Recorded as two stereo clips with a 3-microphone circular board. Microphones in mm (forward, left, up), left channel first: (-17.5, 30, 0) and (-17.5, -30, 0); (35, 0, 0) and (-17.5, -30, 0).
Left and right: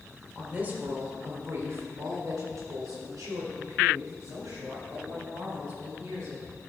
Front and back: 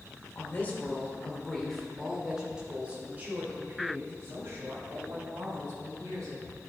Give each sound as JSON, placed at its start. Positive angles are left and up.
{"t": 0.3, "sound": "a woman speaking", "azimuth_deg": -25, "distance_m": 1.8}